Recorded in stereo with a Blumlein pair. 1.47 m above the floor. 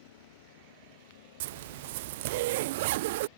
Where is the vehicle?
55° left.